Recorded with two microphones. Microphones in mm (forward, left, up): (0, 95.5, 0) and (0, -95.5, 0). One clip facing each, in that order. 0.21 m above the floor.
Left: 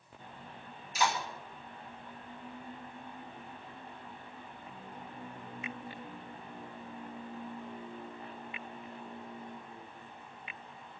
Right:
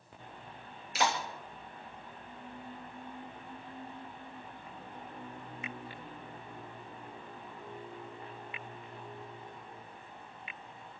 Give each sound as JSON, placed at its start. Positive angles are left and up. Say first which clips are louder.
{"t": 0.9, "sound": "a clap", "louder": "even", "side_deg": -70, "distance_m": 3.5}